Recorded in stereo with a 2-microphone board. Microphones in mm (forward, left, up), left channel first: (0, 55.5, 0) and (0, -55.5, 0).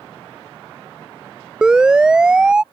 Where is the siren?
10° right (ahead or behind).